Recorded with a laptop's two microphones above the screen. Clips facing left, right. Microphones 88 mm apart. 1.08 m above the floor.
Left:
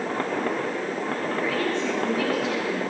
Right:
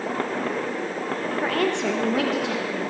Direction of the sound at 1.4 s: 45° right (ahead or behind).